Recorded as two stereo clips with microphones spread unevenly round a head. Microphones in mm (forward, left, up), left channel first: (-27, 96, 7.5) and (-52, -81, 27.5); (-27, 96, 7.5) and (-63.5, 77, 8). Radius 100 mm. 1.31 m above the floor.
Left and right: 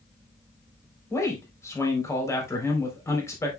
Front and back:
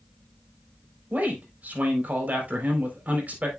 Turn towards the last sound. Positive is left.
turn(degrees=160)